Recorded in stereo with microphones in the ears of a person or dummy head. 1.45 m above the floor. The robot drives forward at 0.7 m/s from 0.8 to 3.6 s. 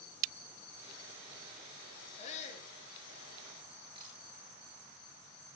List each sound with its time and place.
2.2 s a shout: 35° left (ahead or behind), 3.5 m; by 2.7 s 40° left (ahead or behind), 3 m
4.0 s a camera shutter: 25° right (ahead or behind), 9.5 m